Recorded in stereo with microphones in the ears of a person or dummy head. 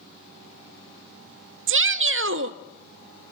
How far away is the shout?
About 0.9 m.